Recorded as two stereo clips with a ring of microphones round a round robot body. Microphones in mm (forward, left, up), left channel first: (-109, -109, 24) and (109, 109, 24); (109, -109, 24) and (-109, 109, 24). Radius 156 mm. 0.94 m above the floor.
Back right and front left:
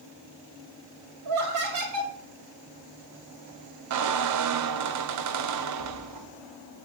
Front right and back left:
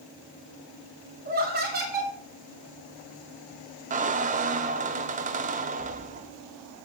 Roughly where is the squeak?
Left.